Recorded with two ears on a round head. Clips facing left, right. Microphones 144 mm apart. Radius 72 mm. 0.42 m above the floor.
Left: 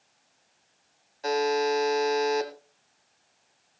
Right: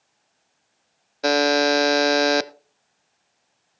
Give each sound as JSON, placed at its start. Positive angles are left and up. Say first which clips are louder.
{"t": 1.2, "sound": "a buzzer", "louder": "right 6 dB", "side_deg": -75, "distance_m": 0.6}